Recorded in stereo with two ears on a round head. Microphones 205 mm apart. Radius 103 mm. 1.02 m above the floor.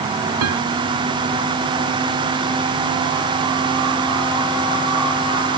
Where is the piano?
80° right.